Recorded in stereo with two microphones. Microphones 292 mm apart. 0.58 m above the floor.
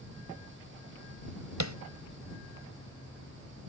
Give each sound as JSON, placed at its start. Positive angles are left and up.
{"t": 1.6, "sound": "tapping", "side_deg": -65}